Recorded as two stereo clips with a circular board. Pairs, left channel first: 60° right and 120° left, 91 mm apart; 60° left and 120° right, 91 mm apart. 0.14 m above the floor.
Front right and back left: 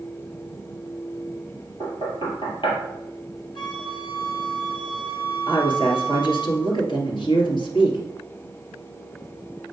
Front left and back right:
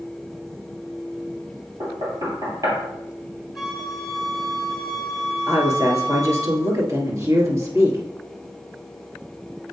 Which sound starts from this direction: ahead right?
A flute, at 3.5 s.